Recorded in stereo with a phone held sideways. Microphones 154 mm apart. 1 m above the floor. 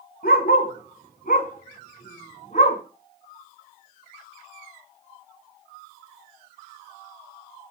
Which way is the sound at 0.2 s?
75° left (ahead or behind).